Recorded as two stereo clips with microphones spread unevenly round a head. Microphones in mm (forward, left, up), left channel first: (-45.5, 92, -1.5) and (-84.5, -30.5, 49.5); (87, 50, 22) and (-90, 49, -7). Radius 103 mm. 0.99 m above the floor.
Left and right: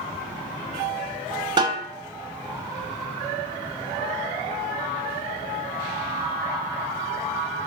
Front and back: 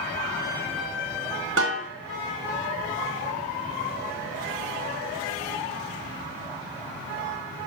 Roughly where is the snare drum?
Behind.